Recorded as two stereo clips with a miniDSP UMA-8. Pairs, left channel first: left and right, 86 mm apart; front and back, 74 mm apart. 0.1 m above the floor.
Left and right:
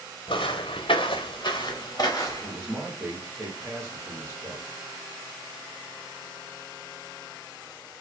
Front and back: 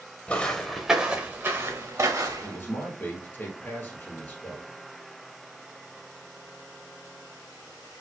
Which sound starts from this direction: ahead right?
A man speaking, at 2.4 s.